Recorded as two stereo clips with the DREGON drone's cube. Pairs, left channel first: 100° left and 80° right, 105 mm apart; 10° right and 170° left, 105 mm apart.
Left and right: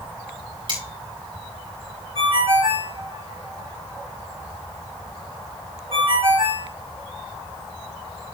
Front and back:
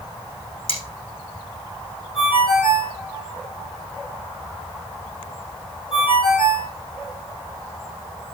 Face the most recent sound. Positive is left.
turn(degrees=-45)